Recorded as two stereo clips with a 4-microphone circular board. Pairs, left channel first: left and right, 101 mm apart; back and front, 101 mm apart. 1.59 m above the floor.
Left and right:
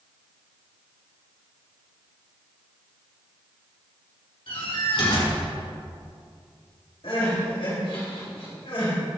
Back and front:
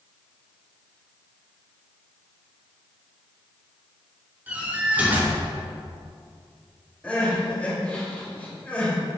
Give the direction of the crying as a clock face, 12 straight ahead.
8 o'clock.